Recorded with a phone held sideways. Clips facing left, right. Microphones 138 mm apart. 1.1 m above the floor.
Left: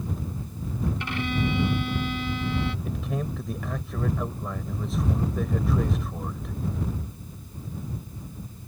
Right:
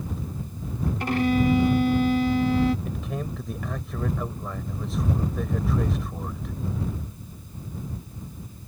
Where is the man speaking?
Centre (ahead or behind).